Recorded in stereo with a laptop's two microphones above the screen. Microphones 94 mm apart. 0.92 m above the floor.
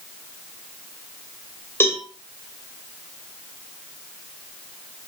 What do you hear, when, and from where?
1.8 s a cowbell: 25° left (ahead or behind), 1.9 m